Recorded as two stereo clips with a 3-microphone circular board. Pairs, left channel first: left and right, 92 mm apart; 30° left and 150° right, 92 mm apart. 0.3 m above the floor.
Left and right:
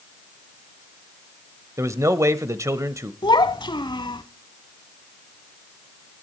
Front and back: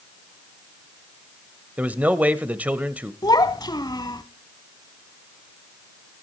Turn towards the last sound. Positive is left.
turn(degrees=65)